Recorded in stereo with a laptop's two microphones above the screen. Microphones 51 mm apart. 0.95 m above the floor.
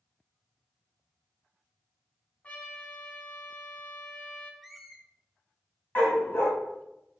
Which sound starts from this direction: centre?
A squeak, at 4.6 s.